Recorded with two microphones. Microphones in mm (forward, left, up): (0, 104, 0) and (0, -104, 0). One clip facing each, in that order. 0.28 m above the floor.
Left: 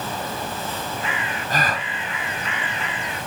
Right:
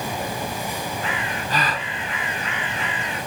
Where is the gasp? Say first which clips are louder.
Left 1 dB; 50° left (ahead or behind), 1.9 m.